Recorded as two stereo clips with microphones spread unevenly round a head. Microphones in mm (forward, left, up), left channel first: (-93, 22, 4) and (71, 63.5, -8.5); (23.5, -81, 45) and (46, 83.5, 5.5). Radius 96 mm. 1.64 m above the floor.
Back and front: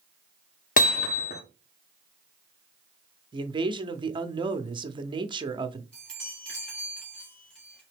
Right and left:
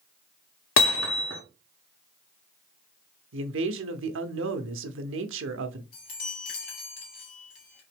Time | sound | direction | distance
0.8 | hammering | 115° right | 0.8 m
3.3 | a man speaking | 80° left | 0.7 m
5.9 | a chime | 85° right | 1.9 m